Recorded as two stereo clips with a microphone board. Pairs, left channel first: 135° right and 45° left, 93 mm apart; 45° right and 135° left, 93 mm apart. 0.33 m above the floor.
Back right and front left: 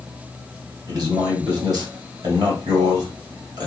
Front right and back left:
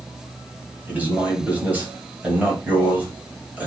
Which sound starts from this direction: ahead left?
A man speaking, at 0.9 s.